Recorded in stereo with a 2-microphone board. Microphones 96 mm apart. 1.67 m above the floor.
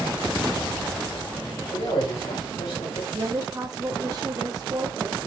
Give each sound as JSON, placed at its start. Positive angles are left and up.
{"t": 1.7, "sound": "a man speaking", "side_deg": 85, "distance_m": 5.0}
{"t": 3.1, "sound": "a woman speaking", "side_deg": -40, "distance_m": 1.7}